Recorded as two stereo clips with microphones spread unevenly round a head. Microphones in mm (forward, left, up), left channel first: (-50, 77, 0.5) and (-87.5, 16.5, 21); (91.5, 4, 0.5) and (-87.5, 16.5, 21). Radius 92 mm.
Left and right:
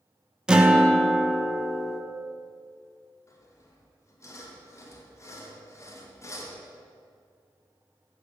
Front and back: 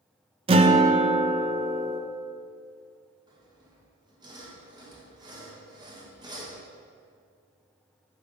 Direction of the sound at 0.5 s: 170° right.